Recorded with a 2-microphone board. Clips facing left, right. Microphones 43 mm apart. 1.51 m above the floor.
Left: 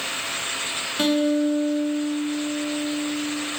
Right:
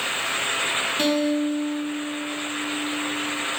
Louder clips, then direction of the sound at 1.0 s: Left 4 dB; 10° left (ahead or behind).